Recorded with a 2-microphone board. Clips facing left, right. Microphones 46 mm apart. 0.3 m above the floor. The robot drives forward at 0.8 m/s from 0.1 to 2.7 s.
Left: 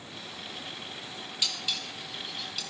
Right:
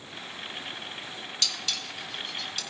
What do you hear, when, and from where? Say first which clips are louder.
1.4 s dishes clattering: even; 15° left (ahead or behind), 1.0 m; by 2.6 s 10° left (ahead or behind), 1.8 m